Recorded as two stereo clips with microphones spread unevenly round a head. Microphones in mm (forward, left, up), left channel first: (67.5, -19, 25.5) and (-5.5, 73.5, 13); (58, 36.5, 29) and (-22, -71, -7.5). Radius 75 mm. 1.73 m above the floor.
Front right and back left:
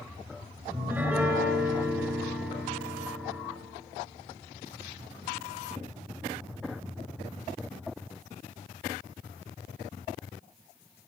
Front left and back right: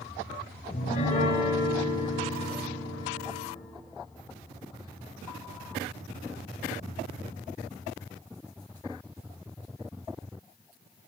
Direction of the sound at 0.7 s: 55° left.